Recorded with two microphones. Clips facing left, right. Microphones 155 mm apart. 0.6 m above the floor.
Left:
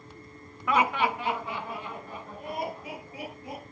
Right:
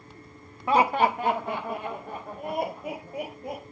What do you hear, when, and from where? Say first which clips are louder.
0.7 s laughter: right 4 dB; 30° right (ahead or behind), 1.1 m; by 3.7 s 50° right (ahead or behind), 3.5 m